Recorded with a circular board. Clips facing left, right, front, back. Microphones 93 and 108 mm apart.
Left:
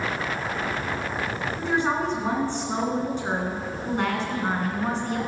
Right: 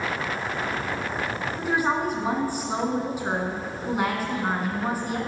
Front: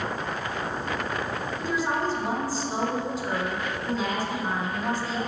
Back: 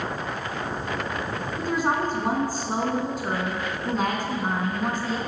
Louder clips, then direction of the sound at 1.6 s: Even, back 3 dB; 170° right.